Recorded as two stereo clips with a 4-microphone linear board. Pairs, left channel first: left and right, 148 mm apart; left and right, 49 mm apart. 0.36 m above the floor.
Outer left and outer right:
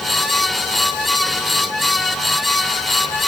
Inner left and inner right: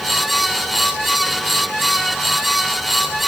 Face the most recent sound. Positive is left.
No sound to turn to.